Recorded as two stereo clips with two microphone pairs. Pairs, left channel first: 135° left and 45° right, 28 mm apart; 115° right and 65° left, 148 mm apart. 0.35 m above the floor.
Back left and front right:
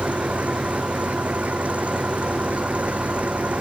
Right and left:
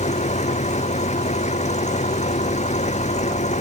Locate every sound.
0.0 s an engine running: 75° right